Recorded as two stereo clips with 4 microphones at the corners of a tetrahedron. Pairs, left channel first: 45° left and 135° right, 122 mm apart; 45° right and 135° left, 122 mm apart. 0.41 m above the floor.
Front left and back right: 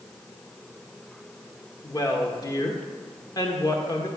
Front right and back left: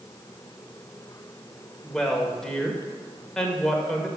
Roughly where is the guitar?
No guitar in this recording.